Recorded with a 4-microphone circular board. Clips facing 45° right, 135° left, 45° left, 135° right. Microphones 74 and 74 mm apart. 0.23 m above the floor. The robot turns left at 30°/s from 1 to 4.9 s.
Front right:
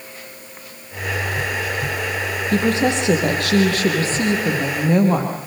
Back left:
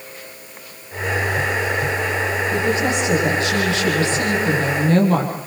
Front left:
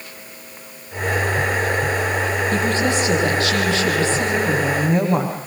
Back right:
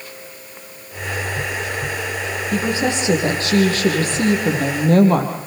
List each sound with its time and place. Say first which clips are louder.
2.5 s a woman speaking: front right 4 dB, back right 2 dB; 50° right, 8 m; by 5.4 s 120° right, 8 m